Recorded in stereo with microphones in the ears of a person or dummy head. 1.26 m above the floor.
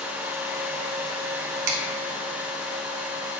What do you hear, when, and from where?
1.7 s a finger snap: 65° right (ahead or behind), 2 m